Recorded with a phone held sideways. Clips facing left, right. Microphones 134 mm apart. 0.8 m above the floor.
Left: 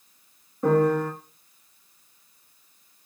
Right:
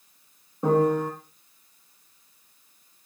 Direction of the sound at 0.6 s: 20° right (ahead or behind).